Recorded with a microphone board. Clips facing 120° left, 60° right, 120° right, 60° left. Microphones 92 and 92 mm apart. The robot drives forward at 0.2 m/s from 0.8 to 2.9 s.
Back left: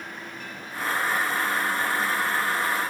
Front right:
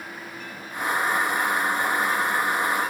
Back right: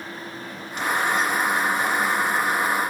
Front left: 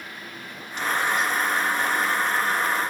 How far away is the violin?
I don't hear a violin.